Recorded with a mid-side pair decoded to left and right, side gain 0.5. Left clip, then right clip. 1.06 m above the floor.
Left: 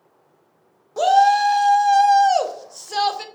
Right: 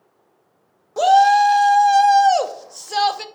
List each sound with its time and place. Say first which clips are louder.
1.0 s a shout: right 2 dB; 15° right, 0.5 m